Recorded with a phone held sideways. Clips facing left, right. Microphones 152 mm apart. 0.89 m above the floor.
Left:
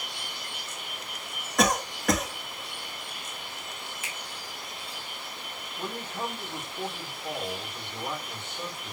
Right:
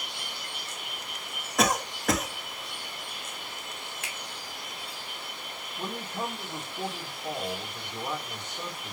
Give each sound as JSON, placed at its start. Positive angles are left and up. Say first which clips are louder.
{"t": 1.6, "sound": "a cough", "louder": "left 1 dB", "side_deg": 0, "distance_m": 1.3}
{"t": 4.0, "sound": "a finger snap", "louder": "even", "side_deg": -65, "distance_m": 1.6}
{"t": 5.8, "sound": "a man speaking", "louder": "even", "side_deg": -15, "distance_m": 2.5}